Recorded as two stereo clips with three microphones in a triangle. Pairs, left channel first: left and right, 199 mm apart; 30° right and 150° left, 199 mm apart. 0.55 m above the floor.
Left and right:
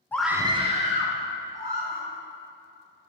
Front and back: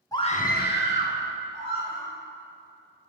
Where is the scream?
20° left, 0.6 m; by 2.1 s 50° right, 2.5 m.